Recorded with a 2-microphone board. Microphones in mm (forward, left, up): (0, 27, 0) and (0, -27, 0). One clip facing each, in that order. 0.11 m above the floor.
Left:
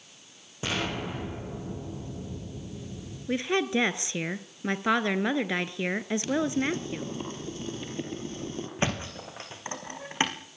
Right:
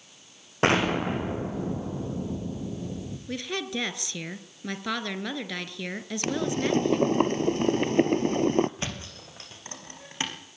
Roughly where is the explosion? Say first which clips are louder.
Right 8 dB; right.